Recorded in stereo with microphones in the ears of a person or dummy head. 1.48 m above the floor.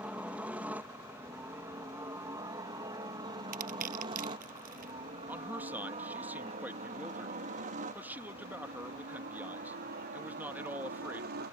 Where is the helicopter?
5° right (ahead or behind); by 11.5 s 55° right (ahead or behind).